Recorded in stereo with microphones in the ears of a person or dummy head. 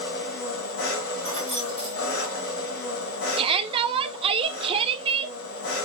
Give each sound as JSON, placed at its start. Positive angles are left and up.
{"t": 0.0, "sound": "an engine running", "side_deg": 65, "distance_m": 2.5}
{"t": 1.2, "sound": "keys jangling", "side_deg": 30, "distance_m": 1.5}
{"t": 3.4, "sound": "a shout", "side_deg": -25, "distance_m": 0.8}